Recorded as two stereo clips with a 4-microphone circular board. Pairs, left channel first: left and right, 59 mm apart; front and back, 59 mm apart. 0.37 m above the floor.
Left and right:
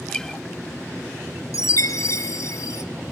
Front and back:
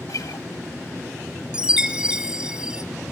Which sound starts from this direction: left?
A chime, at 1.5 s.